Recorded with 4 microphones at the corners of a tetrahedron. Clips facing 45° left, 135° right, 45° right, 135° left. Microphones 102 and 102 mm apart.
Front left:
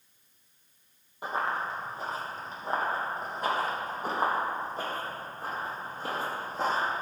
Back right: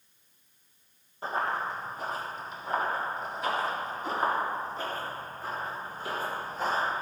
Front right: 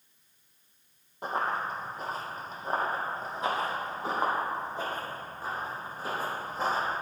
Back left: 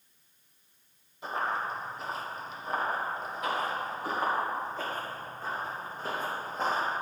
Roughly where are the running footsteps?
Ahead right.